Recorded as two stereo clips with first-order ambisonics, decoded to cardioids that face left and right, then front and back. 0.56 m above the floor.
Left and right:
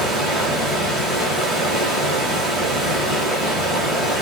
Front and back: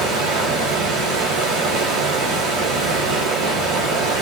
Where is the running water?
155° right, 2 m.